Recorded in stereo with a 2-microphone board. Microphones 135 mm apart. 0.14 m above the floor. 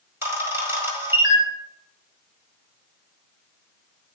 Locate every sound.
0.2 s a camera shutter: 20° right (ahead or behind), 1.4 m